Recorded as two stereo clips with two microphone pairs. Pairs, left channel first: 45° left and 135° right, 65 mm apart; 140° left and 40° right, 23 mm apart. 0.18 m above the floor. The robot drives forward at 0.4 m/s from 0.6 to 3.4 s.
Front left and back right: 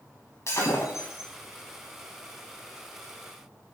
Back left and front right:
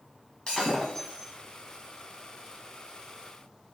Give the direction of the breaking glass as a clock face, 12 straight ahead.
9 o'clock.